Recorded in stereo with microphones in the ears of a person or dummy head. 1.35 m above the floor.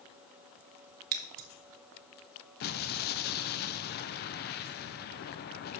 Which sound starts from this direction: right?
Scissors, at 1.1 s.